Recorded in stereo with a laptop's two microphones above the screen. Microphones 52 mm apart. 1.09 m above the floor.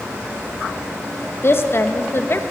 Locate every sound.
1.4 s a woman speaking: 45° left (ahead or behind), 0.8 m